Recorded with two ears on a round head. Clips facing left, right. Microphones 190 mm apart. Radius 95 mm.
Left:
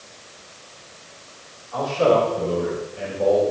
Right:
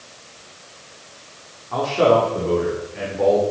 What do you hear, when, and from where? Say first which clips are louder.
1.7 s a man speaking: right 2 dB; 85° right, 4.5 m